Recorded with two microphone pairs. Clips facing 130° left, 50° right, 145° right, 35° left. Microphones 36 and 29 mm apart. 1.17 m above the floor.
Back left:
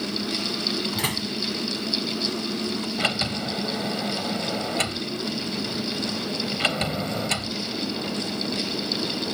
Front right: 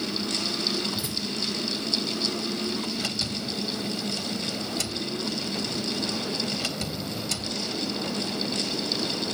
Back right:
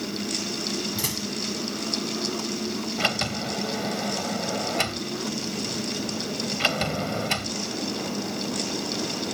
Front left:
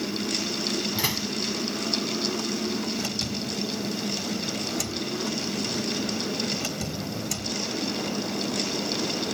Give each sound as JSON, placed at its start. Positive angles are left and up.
{"t": 0.9, "sound": "a door slam", "azimuth_deg": 100}
{"t": 3.0, "sound": "a sliding door", "azimuth_deg": 175}